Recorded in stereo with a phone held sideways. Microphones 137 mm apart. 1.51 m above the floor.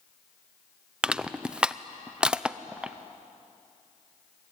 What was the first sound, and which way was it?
Crushing, 5° right (ahead or behind).